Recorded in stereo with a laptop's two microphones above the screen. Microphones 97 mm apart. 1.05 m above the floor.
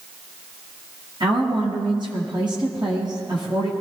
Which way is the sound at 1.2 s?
50° right (ahead or behind).